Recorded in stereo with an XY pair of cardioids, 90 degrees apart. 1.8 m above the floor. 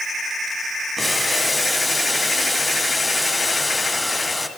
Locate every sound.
1.0 s boiling: 15° left, 1.8 m